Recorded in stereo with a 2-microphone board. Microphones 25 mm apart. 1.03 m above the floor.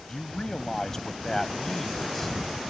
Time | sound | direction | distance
0.1 | a man speaking | 30° left (ahead or behind) | ?